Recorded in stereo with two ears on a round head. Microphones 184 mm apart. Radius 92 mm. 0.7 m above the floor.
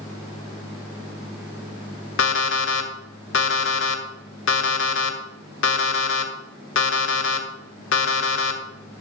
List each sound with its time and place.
2.2 s an alarm clock: 65° left (ahead or behind), 1.4 m